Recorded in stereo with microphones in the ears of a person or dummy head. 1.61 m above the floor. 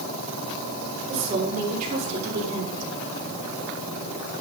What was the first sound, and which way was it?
A woman speaking, 35° right (ahead or behind).